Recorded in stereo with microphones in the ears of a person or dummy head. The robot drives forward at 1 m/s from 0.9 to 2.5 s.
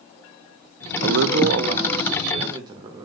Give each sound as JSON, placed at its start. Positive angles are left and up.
{"t": 1.0, "sound": "a man speaking", "side_deg": -80, "distance_m": 0.6}